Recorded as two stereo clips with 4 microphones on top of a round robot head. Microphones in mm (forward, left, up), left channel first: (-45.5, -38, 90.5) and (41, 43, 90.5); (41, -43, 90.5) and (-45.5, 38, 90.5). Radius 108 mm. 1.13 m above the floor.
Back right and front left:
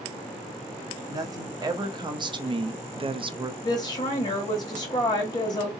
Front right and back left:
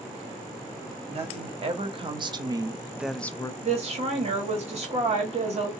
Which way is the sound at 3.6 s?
165° left.